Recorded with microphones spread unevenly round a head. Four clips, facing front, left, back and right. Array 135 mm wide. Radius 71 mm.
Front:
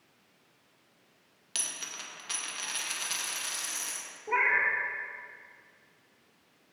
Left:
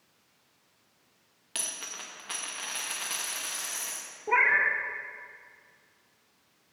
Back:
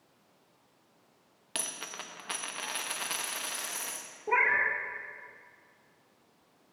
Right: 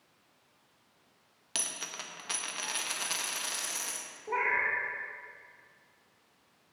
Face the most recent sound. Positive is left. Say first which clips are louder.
# left 5 dB, even
turn(degrees=100)